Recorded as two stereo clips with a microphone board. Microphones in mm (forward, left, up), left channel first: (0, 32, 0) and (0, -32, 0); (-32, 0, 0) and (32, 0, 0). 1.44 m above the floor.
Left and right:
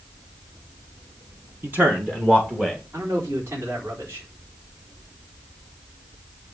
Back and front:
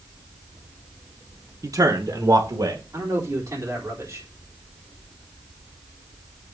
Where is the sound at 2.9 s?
40° right, 4 m.